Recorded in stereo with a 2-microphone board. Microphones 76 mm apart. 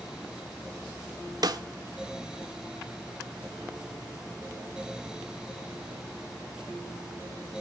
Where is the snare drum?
60° right (ahead or behind), 1.1 m.